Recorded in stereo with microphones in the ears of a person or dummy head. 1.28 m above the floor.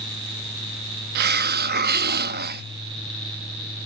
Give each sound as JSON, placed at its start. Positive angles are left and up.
{"t": 1.1, "sound": "a hiss", "side_deg": -55}